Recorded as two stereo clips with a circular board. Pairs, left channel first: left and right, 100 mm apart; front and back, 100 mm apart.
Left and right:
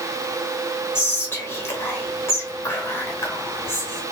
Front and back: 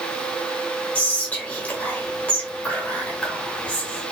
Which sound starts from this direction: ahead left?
Whispering, at 0.9 s.